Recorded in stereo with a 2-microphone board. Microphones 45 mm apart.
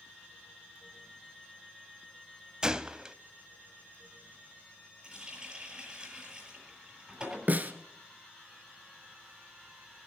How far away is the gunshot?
About 0.5 m.